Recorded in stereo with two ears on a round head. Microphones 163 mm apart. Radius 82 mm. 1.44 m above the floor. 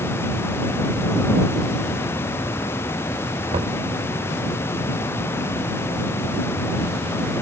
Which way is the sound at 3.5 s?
30° right (ahead or behind).